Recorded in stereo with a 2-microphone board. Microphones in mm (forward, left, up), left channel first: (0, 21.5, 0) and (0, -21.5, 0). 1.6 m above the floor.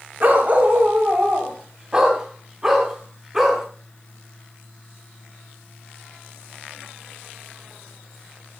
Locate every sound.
0.2 s a dog barking: 45° right (ahead or behind), 2 m; by 3.6 s 10° right (ahead or behind), 4 m